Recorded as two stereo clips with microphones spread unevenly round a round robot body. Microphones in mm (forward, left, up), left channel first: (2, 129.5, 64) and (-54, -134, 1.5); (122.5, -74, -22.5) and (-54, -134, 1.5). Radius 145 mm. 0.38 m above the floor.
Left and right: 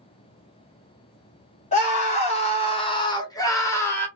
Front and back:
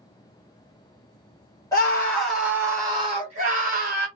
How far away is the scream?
About 1.1 m.